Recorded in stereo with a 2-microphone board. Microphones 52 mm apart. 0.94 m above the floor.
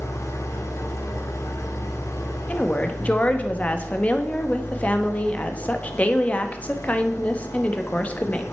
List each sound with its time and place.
0.0 s an engine running: 80° left, 1.4 m
2.5 s a woman speaking: 25° left (ahead or behind), 1.2 m